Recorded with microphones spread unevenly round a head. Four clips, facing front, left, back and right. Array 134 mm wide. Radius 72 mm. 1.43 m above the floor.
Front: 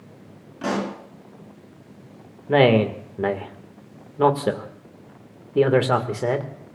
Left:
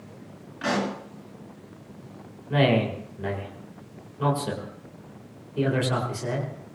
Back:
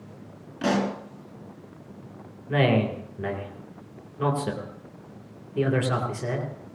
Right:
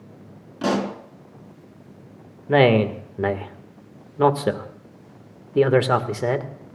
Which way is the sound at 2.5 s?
55° right.